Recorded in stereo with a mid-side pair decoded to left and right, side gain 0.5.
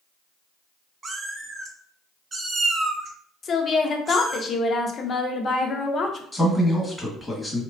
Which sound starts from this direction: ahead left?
A woman speaking, at 3.4 s.